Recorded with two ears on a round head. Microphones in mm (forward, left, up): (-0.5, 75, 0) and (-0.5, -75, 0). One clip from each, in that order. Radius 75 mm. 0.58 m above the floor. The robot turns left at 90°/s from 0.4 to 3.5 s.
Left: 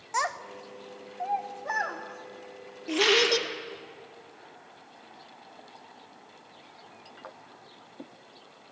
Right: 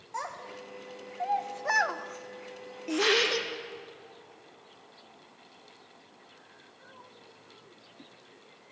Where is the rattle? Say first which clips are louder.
Left 3 dB; 90° left, 3.5 m; by 3.4 s 45° left, 3.5 m.